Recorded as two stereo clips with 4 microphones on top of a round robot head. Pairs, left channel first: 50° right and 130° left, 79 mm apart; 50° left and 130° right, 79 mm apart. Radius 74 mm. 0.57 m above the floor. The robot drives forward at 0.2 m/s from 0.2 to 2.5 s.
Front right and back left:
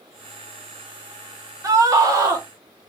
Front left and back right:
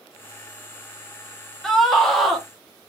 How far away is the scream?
About 0.8 m.